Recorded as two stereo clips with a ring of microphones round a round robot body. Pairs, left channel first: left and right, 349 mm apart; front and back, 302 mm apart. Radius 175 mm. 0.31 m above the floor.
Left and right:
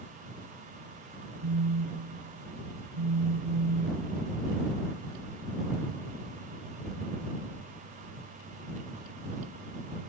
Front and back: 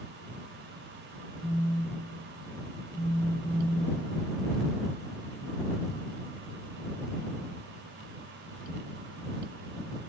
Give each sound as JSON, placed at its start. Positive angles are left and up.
{"t": 1.4, "sound": "a phone buzzing", "azimuth_deg": -90}